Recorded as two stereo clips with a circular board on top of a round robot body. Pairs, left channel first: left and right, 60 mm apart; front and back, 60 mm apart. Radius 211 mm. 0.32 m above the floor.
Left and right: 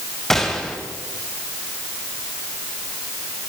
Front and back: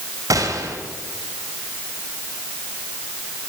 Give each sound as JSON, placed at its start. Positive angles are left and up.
{"t": 0.3, "sound": "a gunshot", "azimuth_deg": 175, "distance_m": 4.0}